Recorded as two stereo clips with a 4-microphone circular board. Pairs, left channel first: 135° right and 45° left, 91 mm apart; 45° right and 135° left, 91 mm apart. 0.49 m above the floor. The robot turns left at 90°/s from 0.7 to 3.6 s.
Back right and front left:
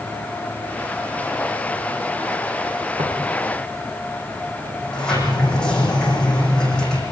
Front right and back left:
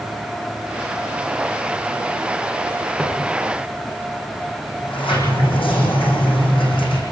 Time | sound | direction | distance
3.0 | footsteps | 35° left | 9.5 m
4.8 | a sliding door | 55° right | 8.5 m